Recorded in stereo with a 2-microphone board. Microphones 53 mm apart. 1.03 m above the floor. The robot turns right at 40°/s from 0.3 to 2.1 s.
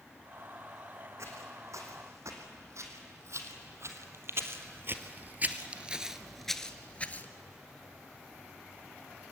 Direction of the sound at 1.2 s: 60° right (ahead or behind).